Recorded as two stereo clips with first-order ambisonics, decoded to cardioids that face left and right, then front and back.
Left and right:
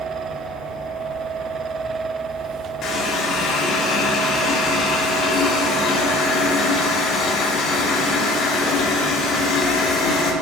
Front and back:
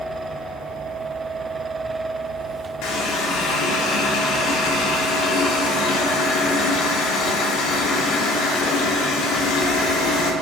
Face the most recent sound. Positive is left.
turn(degrees=30)